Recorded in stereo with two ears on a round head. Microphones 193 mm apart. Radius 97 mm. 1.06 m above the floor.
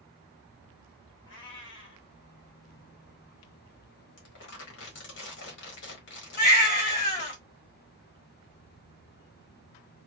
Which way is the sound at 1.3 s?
55° left (ahead or behind).